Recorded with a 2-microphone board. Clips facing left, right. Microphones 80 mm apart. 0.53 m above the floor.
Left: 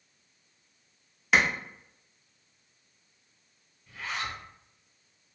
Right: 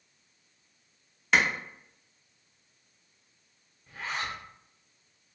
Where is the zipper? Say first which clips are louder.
Right 1 dB; 35° right (ahead or behind), 0.8 m.